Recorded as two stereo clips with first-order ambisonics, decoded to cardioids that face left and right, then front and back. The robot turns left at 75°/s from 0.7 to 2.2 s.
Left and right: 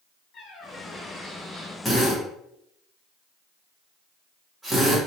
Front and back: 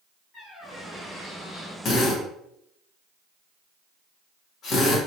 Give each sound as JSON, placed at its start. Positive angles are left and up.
{"t": 0.3, "sound": "a squeak", "azimuth_deg": 65, "distance_m": 1.6}
{"t": 1.9, "sound": "a drill", "azimuth_deg": 15, "distance_m": 0.9}